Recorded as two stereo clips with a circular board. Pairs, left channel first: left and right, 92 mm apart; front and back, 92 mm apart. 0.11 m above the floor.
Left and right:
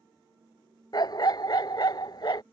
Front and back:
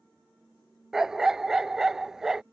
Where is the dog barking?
95° left.